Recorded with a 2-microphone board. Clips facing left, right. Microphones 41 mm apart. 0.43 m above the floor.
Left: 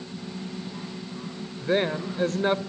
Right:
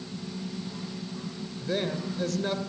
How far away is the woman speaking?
About 1.7 m.